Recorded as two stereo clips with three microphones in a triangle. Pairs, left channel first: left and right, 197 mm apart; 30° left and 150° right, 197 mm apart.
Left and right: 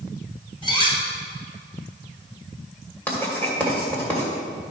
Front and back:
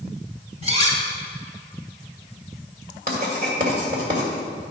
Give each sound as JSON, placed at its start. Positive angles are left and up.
{"t": 0.6, "sound": "cutlery clinking", "azimuth_deg": 155, "distance_m": 2.0}
{"t": 3.1, "sound": "writing", "azimuth_deg": 170, "distance_m": 2.0}